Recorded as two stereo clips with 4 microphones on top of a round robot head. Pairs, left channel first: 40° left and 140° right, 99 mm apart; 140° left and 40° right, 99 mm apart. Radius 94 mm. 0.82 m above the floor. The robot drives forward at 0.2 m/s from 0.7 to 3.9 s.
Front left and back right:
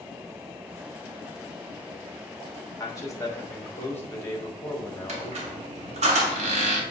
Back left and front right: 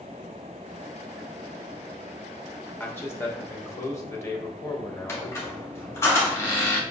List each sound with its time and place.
2.8 s a man speaking: 80° left, 1.1 m; by 5.6 s 100° left, 1.1 m
5.1 s a squeak: 155° right, 0.5 m